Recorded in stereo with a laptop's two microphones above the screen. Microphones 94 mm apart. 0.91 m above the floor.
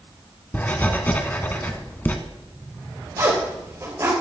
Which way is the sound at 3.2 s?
40° right (ahead or behind).